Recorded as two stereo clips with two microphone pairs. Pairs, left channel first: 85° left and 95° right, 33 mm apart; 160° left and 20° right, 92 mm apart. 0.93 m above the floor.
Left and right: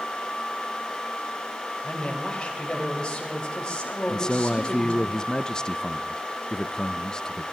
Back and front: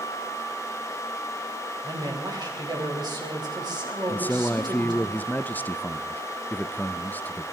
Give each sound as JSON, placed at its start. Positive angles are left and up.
{"t": 1.8, "sound": "a man speaking", "azimuth_deg": 20, "distance_m": 4.0}
{"t": 4.1, "sound": "a man speaking", "azimuth_deg": 115, "distance_m": 0.5}